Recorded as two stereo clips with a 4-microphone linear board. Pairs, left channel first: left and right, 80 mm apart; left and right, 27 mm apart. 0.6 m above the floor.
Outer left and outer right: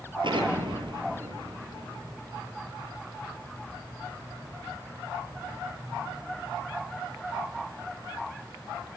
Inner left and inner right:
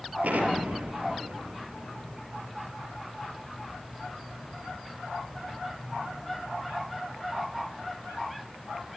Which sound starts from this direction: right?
An explosion, at 0.2 s.